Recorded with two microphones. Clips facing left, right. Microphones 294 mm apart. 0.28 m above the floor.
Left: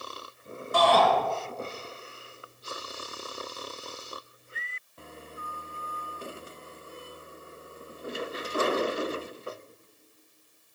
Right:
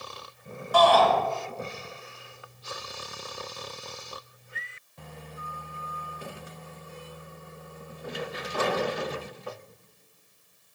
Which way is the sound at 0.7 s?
25° left (ahead or behind).